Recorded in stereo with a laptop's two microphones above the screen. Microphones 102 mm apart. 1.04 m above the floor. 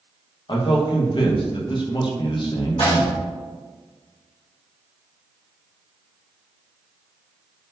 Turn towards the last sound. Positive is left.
turn(degrees=60)  # may be behind; listen again after turning